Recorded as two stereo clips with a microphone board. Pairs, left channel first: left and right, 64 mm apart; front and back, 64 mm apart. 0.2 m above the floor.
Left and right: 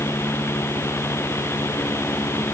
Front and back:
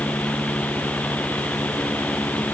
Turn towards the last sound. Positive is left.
No sound to turn to.